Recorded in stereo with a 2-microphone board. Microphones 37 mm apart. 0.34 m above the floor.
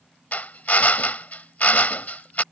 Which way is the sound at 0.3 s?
50° left (ahead or behind).